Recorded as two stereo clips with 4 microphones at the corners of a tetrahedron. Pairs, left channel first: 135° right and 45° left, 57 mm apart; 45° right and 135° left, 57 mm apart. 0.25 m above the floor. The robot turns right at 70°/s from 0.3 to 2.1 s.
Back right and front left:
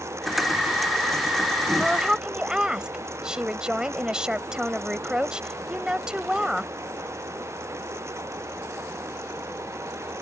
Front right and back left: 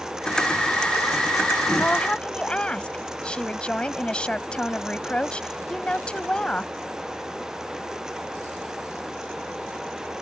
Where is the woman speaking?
30° right; by 6.7 s 10° right.